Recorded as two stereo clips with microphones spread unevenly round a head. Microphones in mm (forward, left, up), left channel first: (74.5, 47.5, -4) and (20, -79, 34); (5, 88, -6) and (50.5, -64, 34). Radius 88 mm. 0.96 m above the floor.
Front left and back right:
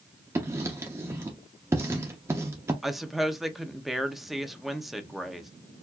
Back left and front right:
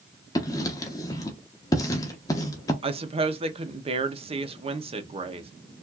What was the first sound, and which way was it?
Writing, 175° right.